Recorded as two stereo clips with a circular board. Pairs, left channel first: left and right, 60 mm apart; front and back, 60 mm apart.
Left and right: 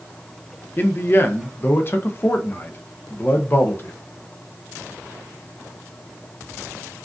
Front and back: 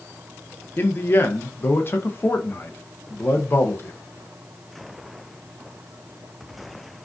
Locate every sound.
0.8 s a man speaking: 45° left, 0.5 m